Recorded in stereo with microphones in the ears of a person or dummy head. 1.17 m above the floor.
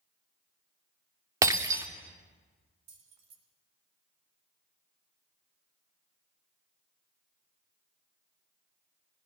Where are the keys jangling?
65° right (ahead or behind), 4 m.